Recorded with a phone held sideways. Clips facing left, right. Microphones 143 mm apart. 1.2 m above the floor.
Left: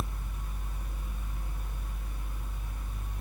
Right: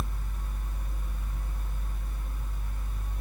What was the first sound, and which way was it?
A fan, 10° left (ahead or behind).